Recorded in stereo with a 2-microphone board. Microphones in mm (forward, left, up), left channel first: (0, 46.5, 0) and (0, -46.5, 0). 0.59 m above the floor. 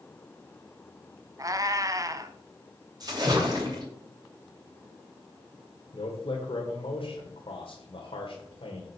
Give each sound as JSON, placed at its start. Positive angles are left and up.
{"t": 1.4, "sound": "a cat meowing", "side_deg": -35, "distance_m": 0.8}
{"t": 3.0, "sound": "a splash", "side_deg": -40, "distance_m": 3.5}
{"t": 5.9, "sound": "a man speaking", "side_deg": 65, "distance_m": 1.8}